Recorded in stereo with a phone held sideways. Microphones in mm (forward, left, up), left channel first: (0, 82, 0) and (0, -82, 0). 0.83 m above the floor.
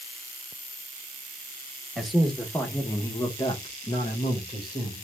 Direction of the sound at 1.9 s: Centre (ahead or behind).